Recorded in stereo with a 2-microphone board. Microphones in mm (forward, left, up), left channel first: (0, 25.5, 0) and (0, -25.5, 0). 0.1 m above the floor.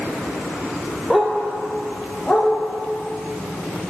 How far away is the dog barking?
About 1.1 m.